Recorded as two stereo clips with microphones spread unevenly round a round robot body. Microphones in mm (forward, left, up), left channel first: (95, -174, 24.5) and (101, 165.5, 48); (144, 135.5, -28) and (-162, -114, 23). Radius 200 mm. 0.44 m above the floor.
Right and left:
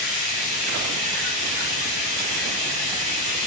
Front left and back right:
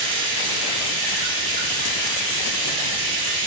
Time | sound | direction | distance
0.0 | running water | 170° right | 1.8 m